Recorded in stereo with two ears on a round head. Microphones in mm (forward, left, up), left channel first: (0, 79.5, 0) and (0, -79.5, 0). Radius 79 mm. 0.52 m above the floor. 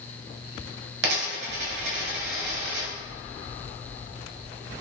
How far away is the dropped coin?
About 1.2 m.